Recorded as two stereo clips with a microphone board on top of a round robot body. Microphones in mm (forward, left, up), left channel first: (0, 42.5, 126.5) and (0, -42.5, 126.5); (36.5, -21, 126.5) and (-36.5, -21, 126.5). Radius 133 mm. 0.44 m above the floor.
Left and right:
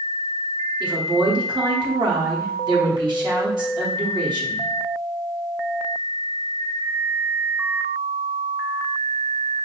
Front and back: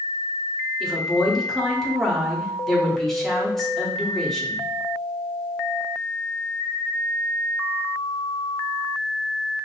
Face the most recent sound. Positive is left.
turn(degrees=-85)